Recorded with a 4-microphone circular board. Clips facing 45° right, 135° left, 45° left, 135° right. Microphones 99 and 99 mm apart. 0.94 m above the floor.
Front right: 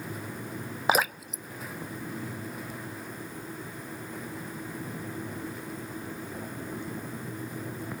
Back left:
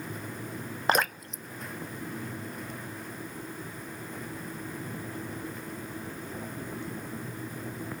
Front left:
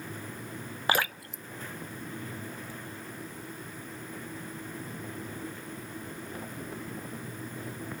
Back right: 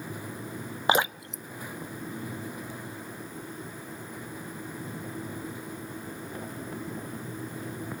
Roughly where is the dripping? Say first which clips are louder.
Front right 1 dB, back right 4 dB; behind right.